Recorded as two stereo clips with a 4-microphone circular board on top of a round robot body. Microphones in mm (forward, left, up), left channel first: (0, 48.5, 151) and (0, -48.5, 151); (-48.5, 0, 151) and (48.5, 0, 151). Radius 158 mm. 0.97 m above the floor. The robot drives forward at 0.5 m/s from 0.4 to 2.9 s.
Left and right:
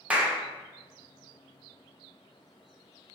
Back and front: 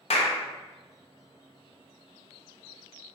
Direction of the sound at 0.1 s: 170° right.